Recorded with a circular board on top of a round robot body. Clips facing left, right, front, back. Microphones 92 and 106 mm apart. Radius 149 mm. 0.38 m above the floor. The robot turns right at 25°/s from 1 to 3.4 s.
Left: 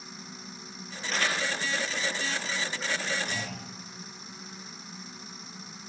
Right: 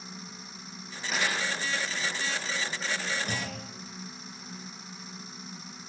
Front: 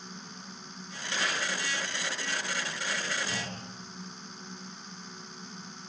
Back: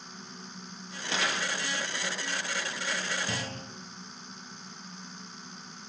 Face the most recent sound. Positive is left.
turn(degrees=-135)